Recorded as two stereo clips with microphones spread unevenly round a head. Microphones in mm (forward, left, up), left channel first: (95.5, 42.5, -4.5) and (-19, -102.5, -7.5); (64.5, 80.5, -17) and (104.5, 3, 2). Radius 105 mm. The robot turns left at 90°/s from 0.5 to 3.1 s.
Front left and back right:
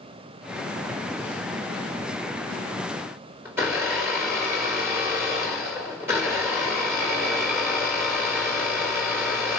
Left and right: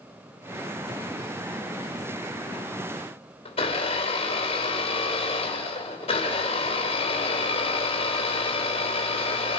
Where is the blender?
150° left, 3 m.